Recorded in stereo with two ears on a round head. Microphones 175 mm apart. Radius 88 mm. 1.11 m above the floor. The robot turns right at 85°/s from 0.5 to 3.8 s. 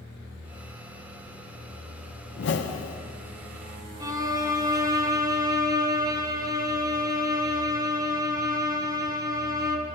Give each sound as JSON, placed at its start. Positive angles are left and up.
{"t": 2.4, "sound": "a whoosh", "azimuth_deg": 60, "distance_m": 0.6}
{"t": 4.0, "sound": "a violin", "side_deg": -20, "distance_m": 0.6}